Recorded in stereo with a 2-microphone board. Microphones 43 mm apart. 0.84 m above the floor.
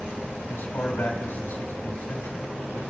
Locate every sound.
0.5 s a man speaking: 65° left (ahead or behind), 3 m